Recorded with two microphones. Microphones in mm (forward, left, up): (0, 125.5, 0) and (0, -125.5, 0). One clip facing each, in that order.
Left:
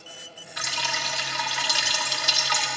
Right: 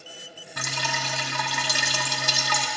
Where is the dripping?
55° right (ahead or behind), 0.9 m.